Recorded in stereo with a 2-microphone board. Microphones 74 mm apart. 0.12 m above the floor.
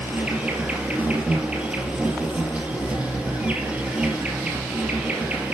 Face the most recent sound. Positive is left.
turn(degrees=-15)  # may be behind; listen again after turning